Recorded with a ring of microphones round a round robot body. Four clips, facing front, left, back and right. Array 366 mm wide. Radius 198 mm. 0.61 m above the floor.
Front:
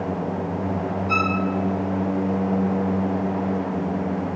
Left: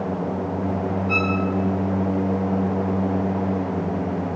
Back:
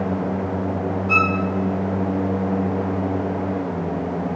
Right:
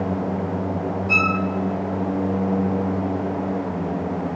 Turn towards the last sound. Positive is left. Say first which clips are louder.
# right 2 dB, back 3 dB
turn(degrees=-120)